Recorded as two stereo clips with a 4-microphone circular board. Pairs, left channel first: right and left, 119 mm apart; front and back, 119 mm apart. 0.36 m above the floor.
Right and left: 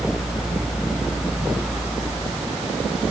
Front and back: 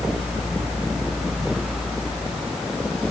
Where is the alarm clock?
No alarm clock in this recording.